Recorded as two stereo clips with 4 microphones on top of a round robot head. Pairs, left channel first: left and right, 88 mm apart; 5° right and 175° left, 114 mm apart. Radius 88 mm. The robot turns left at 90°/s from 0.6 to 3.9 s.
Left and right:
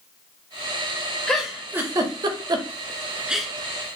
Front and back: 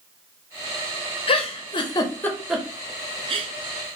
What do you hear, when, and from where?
1.3 s a giggle: 10° left, 0.5 m; by 3.5 s 175° left, 0.5 m